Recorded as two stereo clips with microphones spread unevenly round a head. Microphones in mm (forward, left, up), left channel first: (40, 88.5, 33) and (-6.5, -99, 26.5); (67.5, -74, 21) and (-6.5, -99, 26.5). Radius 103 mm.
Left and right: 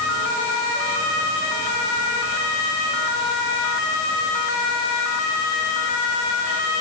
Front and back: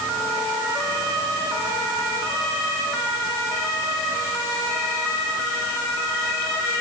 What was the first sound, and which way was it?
Only background noise.